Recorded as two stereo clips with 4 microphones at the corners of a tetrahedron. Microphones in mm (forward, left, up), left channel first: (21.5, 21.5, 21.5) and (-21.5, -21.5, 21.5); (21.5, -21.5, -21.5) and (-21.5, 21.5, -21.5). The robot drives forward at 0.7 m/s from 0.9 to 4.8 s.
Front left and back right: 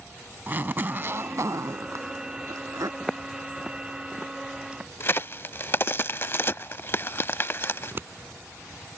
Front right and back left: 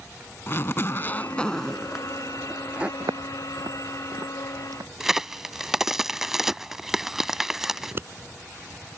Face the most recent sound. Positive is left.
turn(degrees=180)